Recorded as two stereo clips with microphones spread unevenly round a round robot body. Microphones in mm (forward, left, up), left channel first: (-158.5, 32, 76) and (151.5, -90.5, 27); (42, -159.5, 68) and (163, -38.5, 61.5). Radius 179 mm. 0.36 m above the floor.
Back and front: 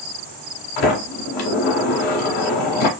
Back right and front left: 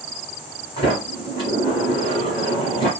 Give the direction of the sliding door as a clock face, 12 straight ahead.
7 o'clock.